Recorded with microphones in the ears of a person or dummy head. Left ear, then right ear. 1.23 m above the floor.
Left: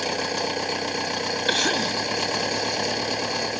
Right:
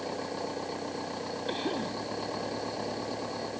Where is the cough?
65° left (ahead or behind).